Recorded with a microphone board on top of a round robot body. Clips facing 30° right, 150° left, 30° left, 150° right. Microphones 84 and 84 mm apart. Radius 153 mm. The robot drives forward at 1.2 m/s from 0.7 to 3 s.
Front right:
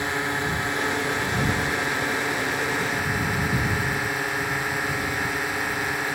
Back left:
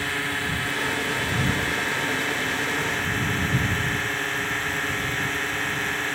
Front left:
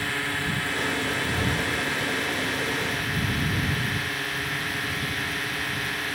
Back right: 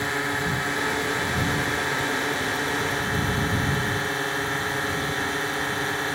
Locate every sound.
0.0 s a drone: 90° right; by 6.2 s 105° right